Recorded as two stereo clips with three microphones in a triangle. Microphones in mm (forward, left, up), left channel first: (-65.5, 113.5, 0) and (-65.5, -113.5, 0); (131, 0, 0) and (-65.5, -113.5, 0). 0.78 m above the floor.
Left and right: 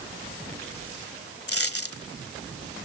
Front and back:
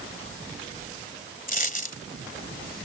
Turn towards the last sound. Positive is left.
turn(degrees=80)